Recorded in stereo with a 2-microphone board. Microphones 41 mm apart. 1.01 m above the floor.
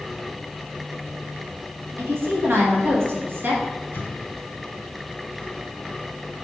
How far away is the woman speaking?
About 1.9 m.